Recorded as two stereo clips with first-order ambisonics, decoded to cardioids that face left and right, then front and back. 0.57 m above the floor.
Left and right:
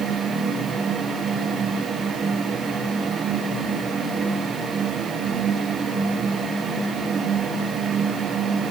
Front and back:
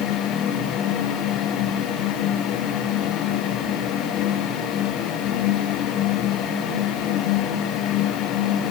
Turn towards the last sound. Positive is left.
No sound to turn to.